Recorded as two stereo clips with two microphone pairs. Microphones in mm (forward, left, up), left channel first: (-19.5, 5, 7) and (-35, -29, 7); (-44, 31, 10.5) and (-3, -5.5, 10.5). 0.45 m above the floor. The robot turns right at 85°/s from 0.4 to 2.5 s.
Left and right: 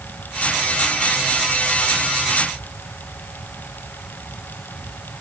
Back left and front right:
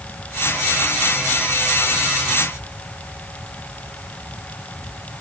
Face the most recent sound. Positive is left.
No sound to turn to.